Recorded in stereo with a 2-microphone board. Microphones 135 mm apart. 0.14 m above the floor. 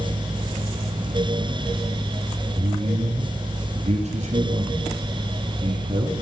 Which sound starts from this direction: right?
A man speaking, at 2.5 s.